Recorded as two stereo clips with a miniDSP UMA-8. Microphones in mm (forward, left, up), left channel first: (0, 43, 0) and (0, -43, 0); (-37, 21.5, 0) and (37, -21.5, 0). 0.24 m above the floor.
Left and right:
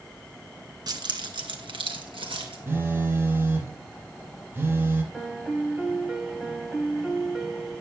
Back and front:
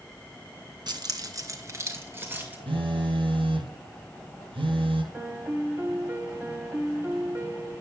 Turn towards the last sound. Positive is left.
turn(degrees=-15)